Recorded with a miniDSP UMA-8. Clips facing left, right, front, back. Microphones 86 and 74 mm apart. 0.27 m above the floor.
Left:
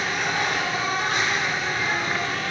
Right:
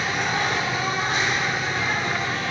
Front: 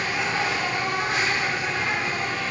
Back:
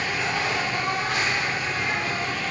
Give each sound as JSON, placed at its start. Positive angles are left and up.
{"t": 0.0, "sound": "an insect", "azimuth_deg": -55, "distance_m": 1.6}